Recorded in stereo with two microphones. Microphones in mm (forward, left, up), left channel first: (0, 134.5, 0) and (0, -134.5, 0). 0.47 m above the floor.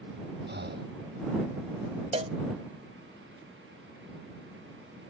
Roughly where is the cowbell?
Right.